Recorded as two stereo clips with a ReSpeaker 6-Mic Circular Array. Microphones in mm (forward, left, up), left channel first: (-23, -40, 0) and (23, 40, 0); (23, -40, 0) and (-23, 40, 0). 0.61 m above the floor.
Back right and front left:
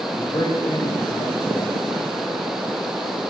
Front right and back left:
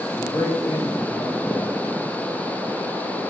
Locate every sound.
0.2 s a man speaking: 110° right, 3 m